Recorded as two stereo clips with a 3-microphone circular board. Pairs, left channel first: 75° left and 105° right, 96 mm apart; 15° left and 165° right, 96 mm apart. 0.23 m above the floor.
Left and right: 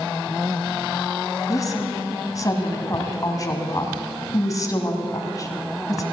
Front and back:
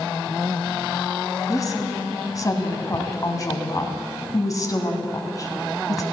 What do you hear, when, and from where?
1.5 s a woman speaking: 45° left, 1.9 m